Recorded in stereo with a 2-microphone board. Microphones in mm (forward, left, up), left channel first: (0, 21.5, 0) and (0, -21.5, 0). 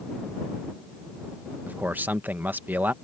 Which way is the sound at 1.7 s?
40° right (ahead or behind).